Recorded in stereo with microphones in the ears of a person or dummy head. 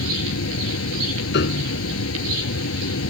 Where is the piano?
65° left (ahead or behind).